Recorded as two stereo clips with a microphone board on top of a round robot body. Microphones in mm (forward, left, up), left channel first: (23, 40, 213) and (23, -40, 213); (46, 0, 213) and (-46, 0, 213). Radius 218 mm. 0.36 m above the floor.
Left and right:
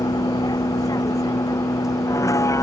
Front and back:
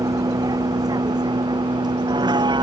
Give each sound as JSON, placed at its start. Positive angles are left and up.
{"t": 0.0, "sound": "a vehicle", "azimuth_deg": 130}